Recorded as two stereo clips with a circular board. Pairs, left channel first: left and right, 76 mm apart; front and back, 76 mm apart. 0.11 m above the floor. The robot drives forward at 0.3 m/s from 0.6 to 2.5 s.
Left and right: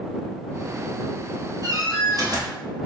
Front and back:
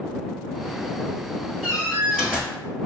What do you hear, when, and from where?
1.6 s a door slam: 85° right, 1.2 m; by 2.6 s 100° right, 1.2 m